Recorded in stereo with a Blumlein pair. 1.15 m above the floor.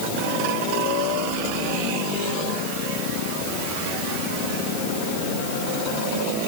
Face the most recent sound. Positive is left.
No sound to turn to.